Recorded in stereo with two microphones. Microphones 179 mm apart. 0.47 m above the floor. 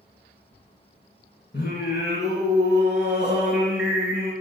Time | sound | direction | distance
1.5 | singing | 75° left (ahead or behind) | 3 m